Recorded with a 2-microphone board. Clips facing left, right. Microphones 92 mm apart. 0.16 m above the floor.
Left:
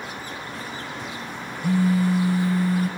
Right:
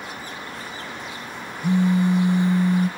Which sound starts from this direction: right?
A phone buzzing, at 1.6 s.